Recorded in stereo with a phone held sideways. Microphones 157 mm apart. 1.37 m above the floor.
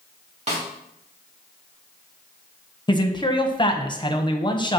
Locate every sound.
0.5 s a snare drum: 40° right (ahead or behind), 1.9 m
2.9 s a man speaking: 25° left (ahead or behind), 0.9 m